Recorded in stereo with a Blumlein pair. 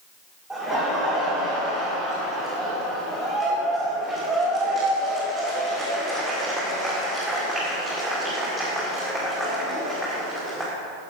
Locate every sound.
0.5 s laughter: straight ahead, 2.5 m